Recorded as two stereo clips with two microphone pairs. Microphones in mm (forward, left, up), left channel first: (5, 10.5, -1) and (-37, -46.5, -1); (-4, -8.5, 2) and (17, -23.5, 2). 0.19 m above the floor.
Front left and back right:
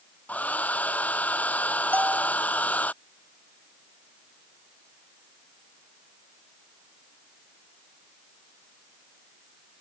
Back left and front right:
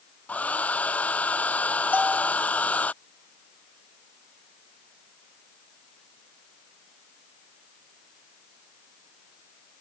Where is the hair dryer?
120° left.